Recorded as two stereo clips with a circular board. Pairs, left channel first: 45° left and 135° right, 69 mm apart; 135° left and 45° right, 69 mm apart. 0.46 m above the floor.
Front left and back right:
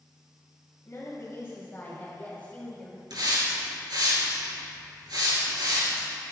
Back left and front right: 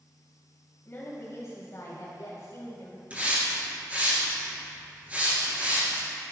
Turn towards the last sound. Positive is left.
turn(degrees=-115)